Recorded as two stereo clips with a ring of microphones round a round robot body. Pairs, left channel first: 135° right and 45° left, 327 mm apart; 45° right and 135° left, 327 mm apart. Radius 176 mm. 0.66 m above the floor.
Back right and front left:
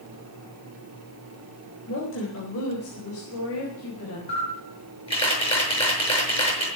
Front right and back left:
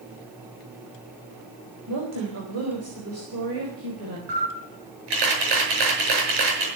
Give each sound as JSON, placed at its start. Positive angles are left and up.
{"t": 1.9, "sound": "a woman speaking", "azimuth_deg": 175, "distance_m": 4.0}
{"t": 4.3, "sound": "a camera shutter", "azimuth_deg": 150, "distance_m": 6.5}